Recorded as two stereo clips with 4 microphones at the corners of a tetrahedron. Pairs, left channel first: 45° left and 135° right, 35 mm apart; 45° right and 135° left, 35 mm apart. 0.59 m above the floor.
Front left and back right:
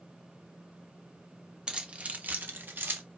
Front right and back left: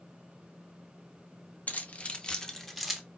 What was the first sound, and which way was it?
Keys jangling, 75° right.